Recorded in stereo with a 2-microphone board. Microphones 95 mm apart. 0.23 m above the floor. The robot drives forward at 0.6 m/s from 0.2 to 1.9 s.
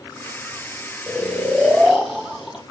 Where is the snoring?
5° right (ahead or behind), 0.8 m.